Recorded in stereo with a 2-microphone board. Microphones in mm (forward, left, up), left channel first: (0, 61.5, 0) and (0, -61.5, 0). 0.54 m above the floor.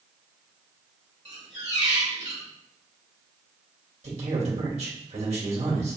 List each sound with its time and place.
1.2 s a squeak: 60° right (ahead or behind), 1.4 m
4.0 s a man speaking: 65° right (ahead or behind), 2.0 m